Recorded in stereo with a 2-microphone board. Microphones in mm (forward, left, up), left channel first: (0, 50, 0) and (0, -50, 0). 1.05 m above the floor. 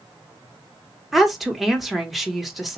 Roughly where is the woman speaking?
Centre.